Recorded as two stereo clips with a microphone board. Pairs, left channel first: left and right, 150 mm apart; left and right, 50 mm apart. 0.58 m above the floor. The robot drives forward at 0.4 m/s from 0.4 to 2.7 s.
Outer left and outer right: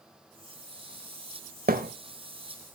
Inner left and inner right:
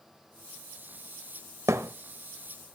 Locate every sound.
1.7 s a thud: 75° right (ahead or behind), 1.0 m; by 1.9 s 70° right (ahead or behind), 1.0 m